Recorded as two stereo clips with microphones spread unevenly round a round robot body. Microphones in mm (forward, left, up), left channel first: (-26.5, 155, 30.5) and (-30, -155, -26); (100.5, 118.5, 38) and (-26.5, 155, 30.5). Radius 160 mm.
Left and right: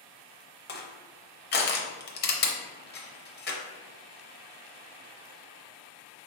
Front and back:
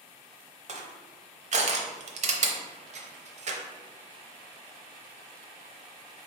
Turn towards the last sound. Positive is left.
turn(degrees=150)